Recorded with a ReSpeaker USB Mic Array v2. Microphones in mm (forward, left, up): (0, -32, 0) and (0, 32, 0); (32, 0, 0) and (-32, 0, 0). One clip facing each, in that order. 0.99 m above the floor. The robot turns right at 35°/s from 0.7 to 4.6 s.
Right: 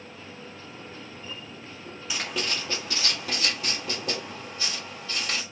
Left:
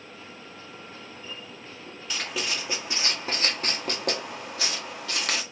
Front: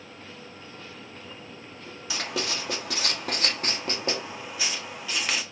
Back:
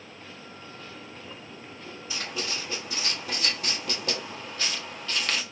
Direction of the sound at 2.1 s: 5° right.